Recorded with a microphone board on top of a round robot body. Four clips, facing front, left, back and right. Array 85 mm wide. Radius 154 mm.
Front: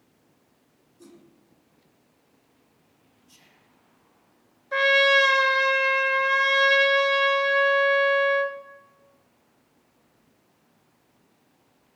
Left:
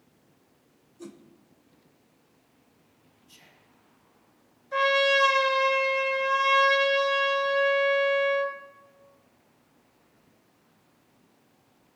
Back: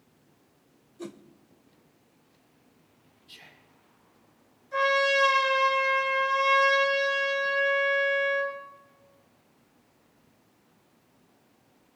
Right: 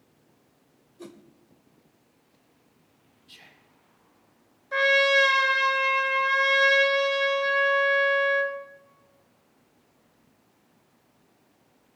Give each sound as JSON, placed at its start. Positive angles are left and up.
{"t": 1.0, "sound": "a whoosh", "azimuth_deg": -160, "distance_m": 1.1}
{"t": 3.3, "sound": "whispering", "azimuth_deg": -140, "distance_m": 1.8}
{"t": 4.7, "sound": "a trumpet", "azimuth_deg": -30, "distance_m": 2.0}